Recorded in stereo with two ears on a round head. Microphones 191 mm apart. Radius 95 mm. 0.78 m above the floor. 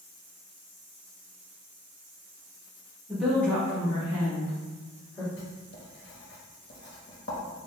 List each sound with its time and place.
3.1 s a woman speaking: centre (ahead or behind), 1.3 m; by 5.3 s 30° left (ahead or behind), 2.0 m
5.4 s writing: 50° left (ahead or behind), 1.0 m